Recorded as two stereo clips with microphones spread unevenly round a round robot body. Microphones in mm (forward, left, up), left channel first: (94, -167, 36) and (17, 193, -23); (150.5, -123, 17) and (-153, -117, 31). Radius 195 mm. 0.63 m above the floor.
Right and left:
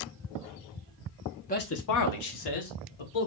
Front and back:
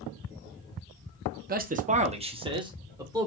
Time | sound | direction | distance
1.5 | a man speaking | 145° right | 0.7 m